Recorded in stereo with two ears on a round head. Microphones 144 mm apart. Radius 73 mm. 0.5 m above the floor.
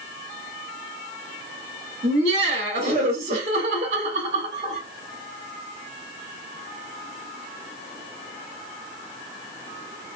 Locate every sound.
2.0 s laughter: 35° right (ahead or behind), 1.3 m